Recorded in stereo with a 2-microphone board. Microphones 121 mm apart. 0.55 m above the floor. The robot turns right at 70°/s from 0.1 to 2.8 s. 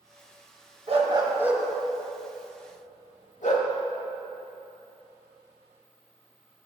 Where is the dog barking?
55° right (ahead or behind), 0.7 m; by 3.7 s 75° left (ahead or behind), 0.7 m.